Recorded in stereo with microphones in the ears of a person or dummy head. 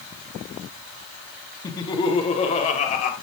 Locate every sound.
1.6 s laughter: 20° left (ahead or behind), 1.3 m; by 3.1 s 45° left (ahead or behind), 2 m